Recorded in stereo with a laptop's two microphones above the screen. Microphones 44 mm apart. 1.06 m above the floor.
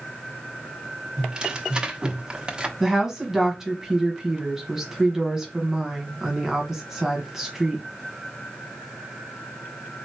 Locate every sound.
1.2 s tearing paper: 20° right (ahead or behind), 0.8 m
2.8 s a woman speaking: 10° right (ahead or behind), 1.2 m